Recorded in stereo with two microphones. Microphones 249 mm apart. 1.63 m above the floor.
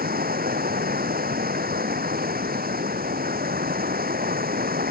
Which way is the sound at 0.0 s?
35° right (ahead or behind).